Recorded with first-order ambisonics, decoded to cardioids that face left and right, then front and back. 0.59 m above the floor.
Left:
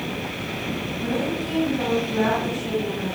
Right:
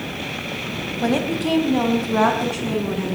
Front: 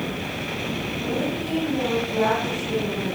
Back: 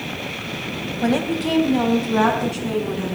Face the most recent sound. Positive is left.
turn(degrees=-130)